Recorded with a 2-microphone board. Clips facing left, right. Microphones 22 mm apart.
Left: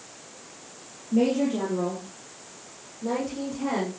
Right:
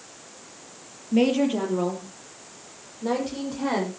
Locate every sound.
1.1 s a woman speaking: 65° right (ahead or behind), 5 m; by 3.9 s 55° right (ahead or behind), 9 m